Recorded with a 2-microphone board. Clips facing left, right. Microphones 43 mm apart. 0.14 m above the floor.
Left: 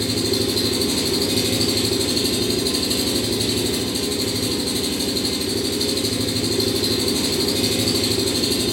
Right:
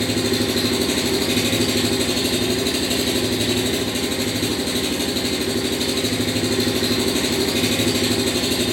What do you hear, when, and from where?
0.0 s an engine running: 45° right (ahead or behind), 1.7 m